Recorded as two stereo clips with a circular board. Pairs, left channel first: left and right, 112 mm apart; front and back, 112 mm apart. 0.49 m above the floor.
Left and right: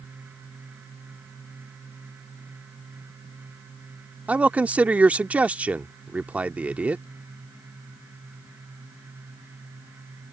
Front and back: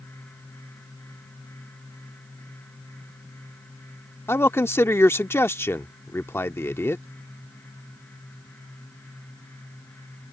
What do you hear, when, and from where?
4.3 s a man speaking: 30° right